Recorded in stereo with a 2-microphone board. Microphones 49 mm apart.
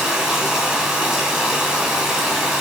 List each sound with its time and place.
0.0 s running water: 15° right (ahead or behind), 3.5 m